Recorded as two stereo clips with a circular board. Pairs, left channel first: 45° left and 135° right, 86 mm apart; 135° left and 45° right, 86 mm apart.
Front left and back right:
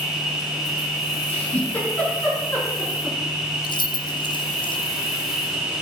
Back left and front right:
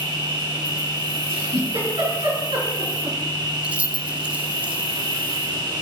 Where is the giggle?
25° right, 5 m.